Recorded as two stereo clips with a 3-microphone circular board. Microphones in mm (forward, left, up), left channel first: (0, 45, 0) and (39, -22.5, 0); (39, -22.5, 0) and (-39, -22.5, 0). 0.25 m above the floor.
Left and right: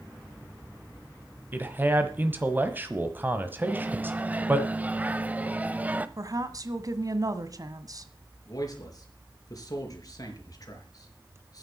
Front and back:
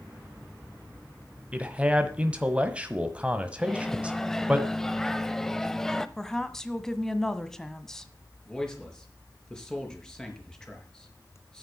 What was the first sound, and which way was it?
A man speaking, 110° right.